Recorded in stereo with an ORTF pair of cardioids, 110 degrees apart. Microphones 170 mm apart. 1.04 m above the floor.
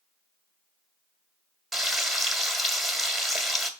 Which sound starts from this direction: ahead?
Frying, at 1.7 s.